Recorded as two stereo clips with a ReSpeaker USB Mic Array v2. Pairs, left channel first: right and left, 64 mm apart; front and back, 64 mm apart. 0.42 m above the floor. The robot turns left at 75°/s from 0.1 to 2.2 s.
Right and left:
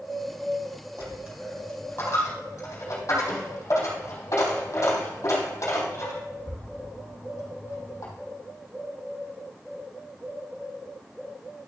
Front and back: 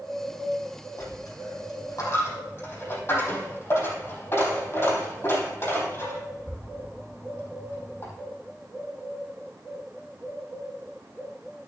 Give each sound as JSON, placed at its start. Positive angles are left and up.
{"t": 1.0, "sound": "a dropped coin", "azimuth_deg": 40, "distance_m": 4.0}